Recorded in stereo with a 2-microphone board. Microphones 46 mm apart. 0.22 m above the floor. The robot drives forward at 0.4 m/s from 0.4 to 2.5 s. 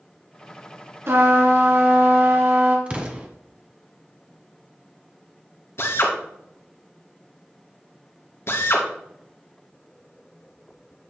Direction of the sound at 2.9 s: 25° right (ahead or behind).